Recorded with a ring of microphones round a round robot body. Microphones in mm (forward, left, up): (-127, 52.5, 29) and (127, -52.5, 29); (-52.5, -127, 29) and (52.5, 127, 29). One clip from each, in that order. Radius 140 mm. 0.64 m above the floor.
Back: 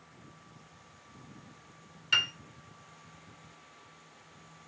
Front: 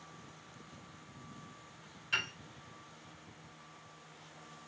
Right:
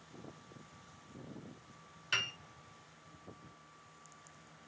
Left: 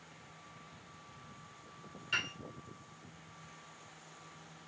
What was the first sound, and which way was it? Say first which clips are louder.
A piano: back 7 dB, right 1 dB; 155° right.